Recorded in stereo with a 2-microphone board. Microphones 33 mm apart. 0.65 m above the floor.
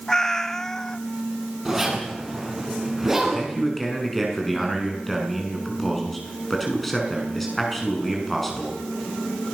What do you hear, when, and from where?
0.1 s a cat meowing: 15° left (ahead or behind), 0.7 m
1.6 s a zipper: 10° right (ahead or behind), 7.5 m
3.2 s a man speaking: 5° left (ahead or behind), 6.5 m